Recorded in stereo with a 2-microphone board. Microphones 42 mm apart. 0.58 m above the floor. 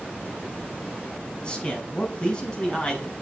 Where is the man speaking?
25° left (ahead or behind), 5 m.